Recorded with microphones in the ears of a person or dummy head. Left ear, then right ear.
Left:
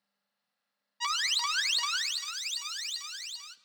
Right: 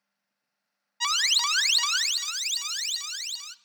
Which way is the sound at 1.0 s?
10° right (ahead or behind).